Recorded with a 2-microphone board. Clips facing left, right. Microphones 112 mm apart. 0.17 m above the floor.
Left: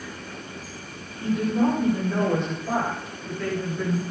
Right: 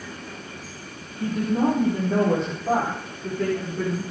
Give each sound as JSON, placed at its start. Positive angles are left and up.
{"t": 1.2, "sound": "a woman speaking", "side_deg": -45, "distance_m": 7.5}